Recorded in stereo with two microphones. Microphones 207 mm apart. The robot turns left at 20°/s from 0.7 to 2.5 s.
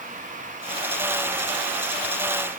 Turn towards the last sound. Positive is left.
No sound to turn to.